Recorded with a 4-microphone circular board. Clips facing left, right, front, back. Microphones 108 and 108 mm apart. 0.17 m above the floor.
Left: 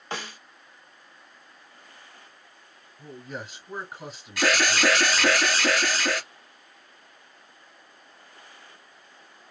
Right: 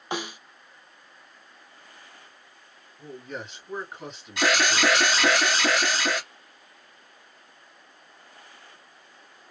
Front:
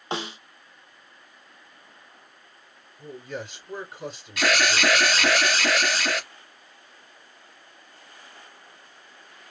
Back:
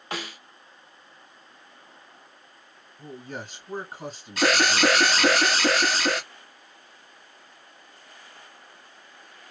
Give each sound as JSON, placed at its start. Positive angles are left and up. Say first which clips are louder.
{"t": 0.1, "sound": "a snare drum", "louder": "right 4 dB, front 4 dB", "azimuth_deg": -30, "distance_m": 0.5}
{"t": 3.0, "sound": "a man speaking", "louder": "right 1 dB, front 2 dB", "azimuth_deg": 170, "distance_m": 2.0}
{"t": 4.4, "sound": "an alarm", "louder": "even, back 2 dB", "azimuth_deg": -145, "distance_m": 1.5}